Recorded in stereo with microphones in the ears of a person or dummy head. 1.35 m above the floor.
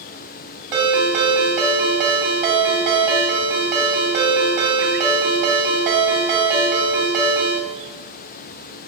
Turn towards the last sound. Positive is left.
turn(degrees=-20)  # may be behind; listen again after turning